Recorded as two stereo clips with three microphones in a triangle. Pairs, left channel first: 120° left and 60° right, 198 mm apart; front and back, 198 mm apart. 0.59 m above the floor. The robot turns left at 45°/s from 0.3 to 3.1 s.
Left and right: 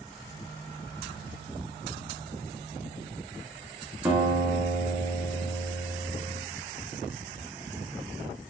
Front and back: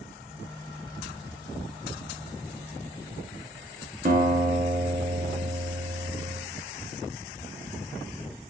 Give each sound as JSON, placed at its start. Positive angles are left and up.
{"t": 4.0, "sound": "a guitar", "azimuth_deg": -140, "distance_m": 0.7}